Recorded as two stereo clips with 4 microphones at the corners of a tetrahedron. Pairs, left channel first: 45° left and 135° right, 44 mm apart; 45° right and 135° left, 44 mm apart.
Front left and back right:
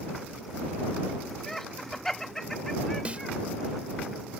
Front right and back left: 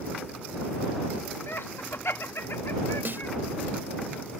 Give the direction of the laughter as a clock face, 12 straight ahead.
1 o'clock.